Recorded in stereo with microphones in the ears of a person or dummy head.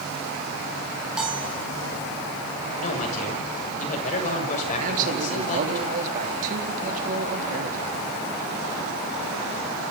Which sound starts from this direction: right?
A man speaking, at 4.8 s.